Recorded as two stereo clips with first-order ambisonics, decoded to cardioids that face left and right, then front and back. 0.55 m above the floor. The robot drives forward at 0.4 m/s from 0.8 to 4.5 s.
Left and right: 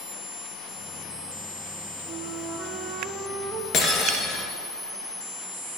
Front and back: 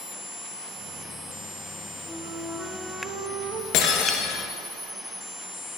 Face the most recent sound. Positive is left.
turn(degrees=45)